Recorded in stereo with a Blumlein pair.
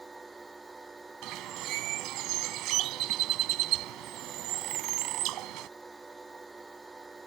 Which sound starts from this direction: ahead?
A machine running, at 0.0 s.